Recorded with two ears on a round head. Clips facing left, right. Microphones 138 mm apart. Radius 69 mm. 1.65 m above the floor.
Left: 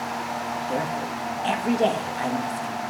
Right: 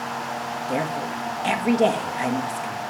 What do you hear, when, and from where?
0.7 s a woman speaking: 15° right (ahead or behind), 3 m